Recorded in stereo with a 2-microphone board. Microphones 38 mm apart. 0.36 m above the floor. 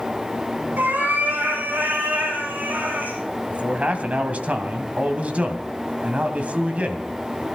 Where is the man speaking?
40° right (ahead or behind), 2 m.